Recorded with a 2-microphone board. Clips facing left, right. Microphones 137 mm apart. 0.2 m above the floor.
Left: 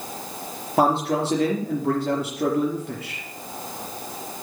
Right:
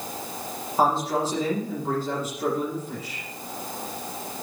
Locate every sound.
0.8 s a man speaking: 75° left (ahead or behind), 4.5 m